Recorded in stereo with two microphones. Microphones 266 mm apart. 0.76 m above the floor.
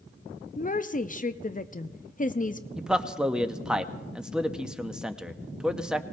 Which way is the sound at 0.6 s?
30° left (ahead or behind).